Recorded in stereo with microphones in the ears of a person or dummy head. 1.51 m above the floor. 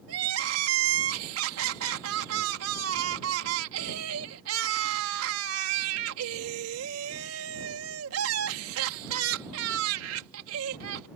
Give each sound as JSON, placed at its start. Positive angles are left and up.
{"t": 0.1, "sound": "crying", "side_deg": -80}